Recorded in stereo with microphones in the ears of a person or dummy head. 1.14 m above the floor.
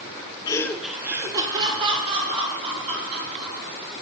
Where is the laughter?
20° left (ahead or behind), 0.6 m; by 3.6 s 40° right (ahead or behind), 2.5 m.